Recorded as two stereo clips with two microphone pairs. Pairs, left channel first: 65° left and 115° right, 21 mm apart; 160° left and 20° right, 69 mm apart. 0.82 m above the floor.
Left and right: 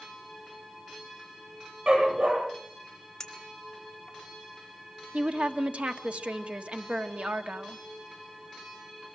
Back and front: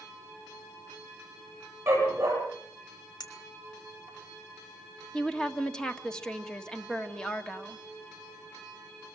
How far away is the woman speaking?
About 1.5 m.